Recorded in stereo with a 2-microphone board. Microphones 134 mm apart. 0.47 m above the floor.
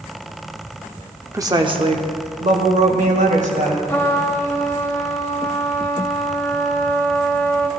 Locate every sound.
1.3 s a woman speaking: 20° right (ahead or behind), 0.7 m; by 3.8 s 65° right (ahead or behind), 2.5 m
3.9 s a trumpet: 15° left (ahead or behind), 1.2 m